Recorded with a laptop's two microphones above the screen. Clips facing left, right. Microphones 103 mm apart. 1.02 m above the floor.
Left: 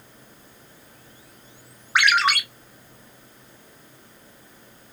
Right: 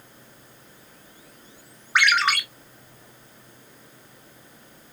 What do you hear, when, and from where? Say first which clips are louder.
1.9 s a ringtone: left 1 dB; 5° left (ahead or behind), 2.5 m